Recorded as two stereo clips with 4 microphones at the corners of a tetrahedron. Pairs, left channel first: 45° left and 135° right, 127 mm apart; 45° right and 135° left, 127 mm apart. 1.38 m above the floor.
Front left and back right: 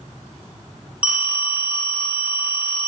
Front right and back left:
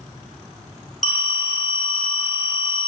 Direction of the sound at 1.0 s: 55° right.